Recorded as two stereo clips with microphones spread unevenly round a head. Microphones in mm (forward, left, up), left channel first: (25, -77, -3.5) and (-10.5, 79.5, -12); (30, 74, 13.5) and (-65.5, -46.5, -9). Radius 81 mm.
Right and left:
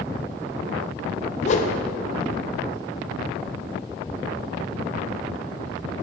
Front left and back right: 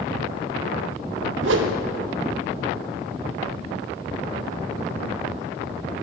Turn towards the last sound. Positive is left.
turn(degrees=-125)